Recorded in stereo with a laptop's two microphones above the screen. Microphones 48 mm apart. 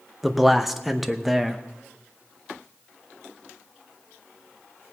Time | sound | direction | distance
0.2 | a man speaking | 5° right (ahead or behind) | 0.7 m